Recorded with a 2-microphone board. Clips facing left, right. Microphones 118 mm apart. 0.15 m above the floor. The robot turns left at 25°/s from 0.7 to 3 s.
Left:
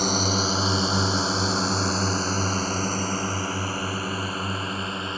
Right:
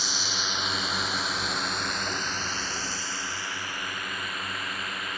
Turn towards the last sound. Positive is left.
turn(degrees=25)  # may be behind; listen again after turning